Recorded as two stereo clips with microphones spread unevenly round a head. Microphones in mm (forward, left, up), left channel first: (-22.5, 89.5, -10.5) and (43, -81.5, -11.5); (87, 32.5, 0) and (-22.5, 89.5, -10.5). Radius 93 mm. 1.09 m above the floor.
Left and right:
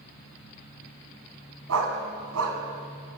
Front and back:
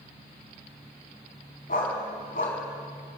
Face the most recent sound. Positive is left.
turn(degrees=-70)